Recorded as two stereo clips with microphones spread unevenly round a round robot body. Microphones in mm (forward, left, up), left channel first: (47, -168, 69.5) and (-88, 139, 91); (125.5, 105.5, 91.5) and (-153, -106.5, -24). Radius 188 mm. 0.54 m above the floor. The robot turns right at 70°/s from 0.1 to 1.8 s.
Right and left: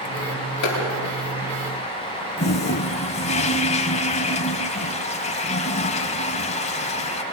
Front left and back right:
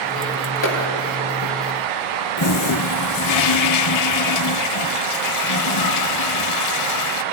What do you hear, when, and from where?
0.6 s a clap: 20° right, 8.5 m; by 0.9 s 5° right, 8.5 m
2.4 s a toilet flushing: 5° left, 0.7 m